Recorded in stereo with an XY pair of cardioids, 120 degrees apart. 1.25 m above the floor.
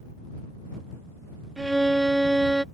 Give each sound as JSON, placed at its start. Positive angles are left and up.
{"t": 1.6, "sound": "a violin", "azimuth_deg": -10}